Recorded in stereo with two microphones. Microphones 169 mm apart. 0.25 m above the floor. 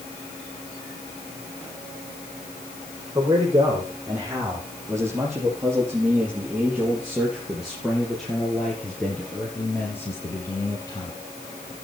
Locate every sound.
3.1 s a man speaking: 20° right (ahead or behind), 9 m; by 11.1 s 25° left (ahead or behind), 4.5 m